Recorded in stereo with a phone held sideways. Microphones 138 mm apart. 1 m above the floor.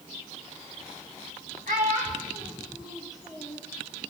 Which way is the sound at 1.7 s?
70° right (ahead or behind).